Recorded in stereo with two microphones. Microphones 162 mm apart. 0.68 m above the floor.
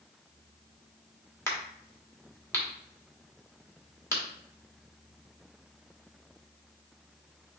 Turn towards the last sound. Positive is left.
turn(degrees=15)  # may be behind; listen again after turning